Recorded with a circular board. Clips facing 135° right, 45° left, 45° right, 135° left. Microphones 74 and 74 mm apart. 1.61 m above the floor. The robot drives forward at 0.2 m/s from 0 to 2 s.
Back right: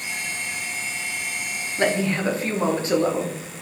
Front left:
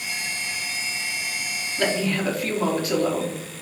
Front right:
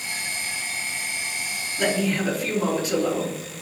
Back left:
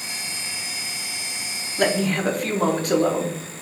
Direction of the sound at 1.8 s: 165° left.